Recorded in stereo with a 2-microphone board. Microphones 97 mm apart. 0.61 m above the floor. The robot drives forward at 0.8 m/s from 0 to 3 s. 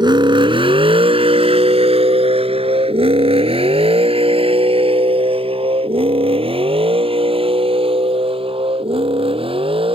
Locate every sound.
0.0 s a vehicle: 50° right (ahead or behind); by 10.0 s 70° right (ahead or behind)